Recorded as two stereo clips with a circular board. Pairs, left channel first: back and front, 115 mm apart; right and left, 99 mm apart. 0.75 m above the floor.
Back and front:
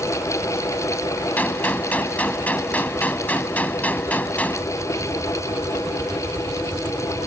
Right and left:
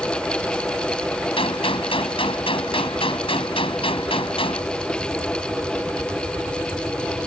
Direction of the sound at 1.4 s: 105° right.